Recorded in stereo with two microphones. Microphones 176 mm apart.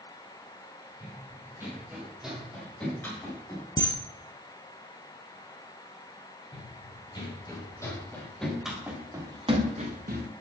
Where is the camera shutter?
25° left (ahead or behind), 1.8 m.